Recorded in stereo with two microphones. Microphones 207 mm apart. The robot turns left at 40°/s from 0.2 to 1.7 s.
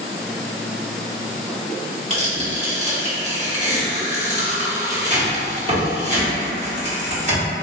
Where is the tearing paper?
35° right (ahead or behind), 1.3 m.